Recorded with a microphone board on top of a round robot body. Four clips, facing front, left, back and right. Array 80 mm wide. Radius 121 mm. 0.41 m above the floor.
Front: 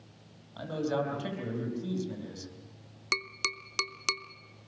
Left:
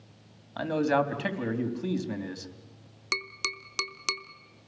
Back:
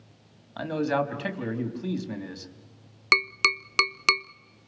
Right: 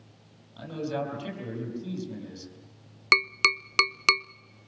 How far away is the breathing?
No breathing in this recording.